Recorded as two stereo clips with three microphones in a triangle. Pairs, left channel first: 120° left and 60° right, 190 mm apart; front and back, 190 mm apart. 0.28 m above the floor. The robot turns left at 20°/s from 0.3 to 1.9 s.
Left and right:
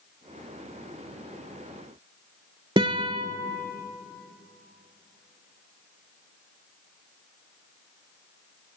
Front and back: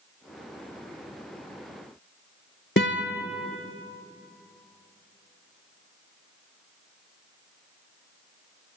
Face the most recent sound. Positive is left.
turn(degrees=5)